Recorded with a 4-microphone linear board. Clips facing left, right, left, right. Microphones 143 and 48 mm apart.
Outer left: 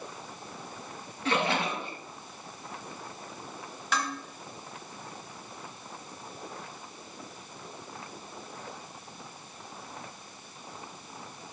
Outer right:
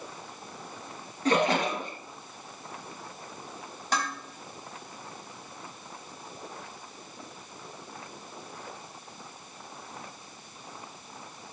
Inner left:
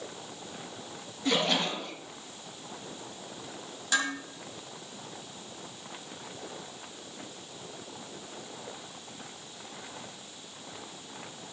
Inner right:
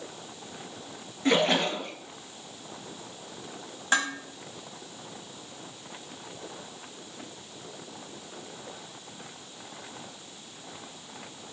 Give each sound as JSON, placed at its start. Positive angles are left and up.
{"t": 1.2, "sound": "a splash", "side_deg": -45, "distance_m": 3.5}
{"t": 3.9, "sound": "dishes clattering", "side_deg": -45, "distance_m": 4.0}